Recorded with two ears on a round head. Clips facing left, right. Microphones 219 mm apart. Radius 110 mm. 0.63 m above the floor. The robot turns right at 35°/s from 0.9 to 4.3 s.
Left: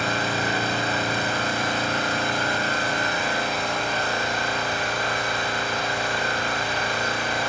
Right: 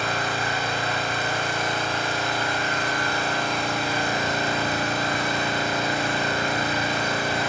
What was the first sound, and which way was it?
An engine running, 85° left.